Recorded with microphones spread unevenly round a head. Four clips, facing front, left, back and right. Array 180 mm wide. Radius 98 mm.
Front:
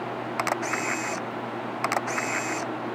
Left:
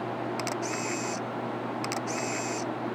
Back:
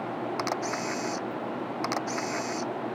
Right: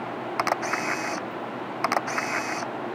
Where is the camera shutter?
60° right.